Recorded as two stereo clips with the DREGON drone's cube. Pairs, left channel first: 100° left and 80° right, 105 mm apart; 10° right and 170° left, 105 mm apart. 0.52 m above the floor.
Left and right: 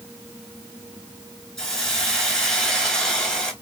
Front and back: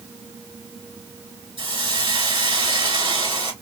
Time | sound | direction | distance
1.6 | a hiss | 175° right | 3.5 m